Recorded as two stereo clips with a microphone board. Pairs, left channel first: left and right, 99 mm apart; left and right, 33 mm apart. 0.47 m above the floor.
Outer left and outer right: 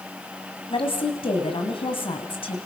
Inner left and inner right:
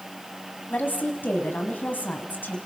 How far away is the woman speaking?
About 3.5 m.